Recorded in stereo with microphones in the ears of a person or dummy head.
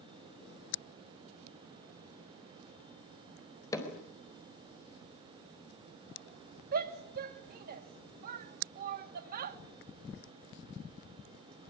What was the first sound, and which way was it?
Hammering, 25° left (ahead or behind).